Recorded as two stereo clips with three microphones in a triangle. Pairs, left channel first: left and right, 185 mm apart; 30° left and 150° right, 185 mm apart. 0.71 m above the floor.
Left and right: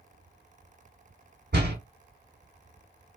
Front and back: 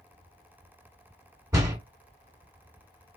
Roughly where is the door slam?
Right.